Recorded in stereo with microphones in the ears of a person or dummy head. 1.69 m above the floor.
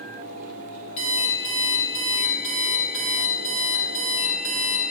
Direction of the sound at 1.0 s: 35° left (ahead or behind).